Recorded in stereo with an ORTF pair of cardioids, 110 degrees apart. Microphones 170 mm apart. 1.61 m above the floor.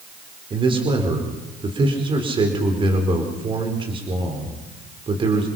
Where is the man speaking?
30° right, 5 m.